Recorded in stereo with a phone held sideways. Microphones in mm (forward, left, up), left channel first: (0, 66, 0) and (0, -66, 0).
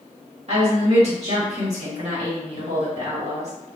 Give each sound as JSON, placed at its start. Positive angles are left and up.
{"t": 0.5, "sound": "a woman speaking", "side_deg": -55, "distance_m": 1.5}